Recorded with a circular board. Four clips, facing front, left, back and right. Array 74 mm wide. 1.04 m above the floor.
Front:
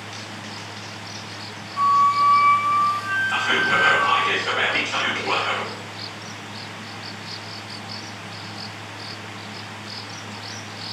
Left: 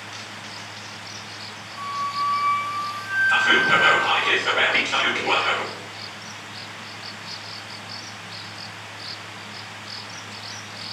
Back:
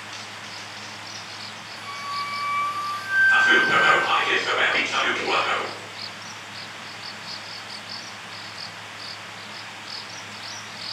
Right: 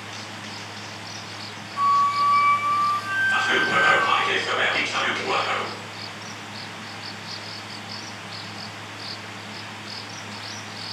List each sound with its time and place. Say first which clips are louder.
1.8 s a flute: right 7 dB, front 15 dB; 25° right, 0.7 m
3.3 s whispering: left 4 dB, back 3 dB; 95° left, 4 m